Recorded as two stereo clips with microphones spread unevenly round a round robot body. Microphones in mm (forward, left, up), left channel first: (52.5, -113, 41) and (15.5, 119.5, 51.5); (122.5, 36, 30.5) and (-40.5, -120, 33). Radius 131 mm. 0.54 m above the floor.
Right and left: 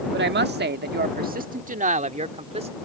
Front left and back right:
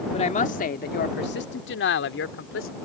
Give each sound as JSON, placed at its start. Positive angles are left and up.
{"t": 0.1, "sound": "a woman speaking", "azimuth_deg": 95}